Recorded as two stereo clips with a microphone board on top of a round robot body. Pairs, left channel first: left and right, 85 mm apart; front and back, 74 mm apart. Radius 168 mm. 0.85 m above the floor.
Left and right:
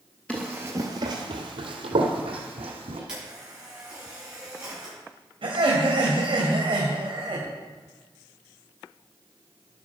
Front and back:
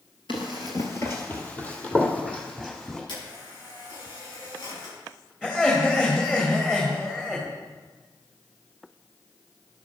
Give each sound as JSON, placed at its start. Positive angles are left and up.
{"t": 0.3, "sound": "running footsteps", "azimuth_deg": 15, "distance_m": 0.9}
{"t": 3.1, "sound": "a camera shutter", "azimuth_deg": -10, "distance_m": 6.5}
{"t": 5.4, "sound": "laughter", "azimuth_deg": -75, "distance_m": 2.5}